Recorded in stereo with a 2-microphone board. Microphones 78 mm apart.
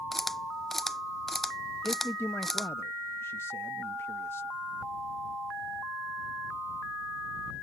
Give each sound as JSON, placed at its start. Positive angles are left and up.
{"t": 0.1, "sound": "a camera shutter", "side_deg": 5}
{"t": 1.8, "sound": "a man speaking", "side_deg": 30}